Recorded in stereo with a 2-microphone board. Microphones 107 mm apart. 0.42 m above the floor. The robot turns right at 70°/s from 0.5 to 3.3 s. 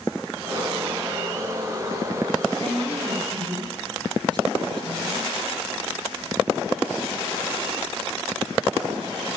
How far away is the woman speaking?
About 6 m.